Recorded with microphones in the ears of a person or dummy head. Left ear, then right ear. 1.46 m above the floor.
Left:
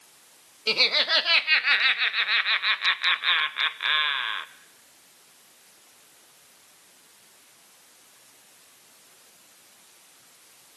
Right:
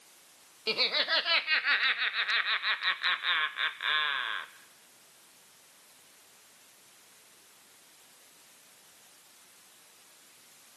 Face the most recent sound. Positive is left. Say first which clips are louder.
# left 6 dB
turn(degrees=10)  # may be behind; listen again after turning